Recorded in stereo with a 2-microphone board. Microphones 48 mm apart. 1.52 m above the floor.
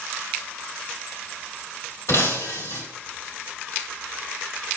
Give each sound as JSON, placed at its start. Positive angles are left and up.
{"t": 2.1, "sound": "breaking glass", "side_deg": 70, "distance_m": 2.5}